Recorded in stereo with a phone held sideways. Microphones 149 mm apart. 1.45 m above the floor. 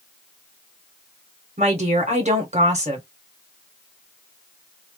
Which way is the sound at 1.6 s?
55° right (ahead or behind).